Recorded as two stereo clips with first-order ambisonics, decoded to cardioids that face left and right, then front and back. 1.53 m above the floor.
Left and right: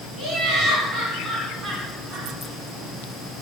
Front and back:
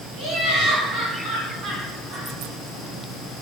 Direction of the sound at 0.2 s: 135° right.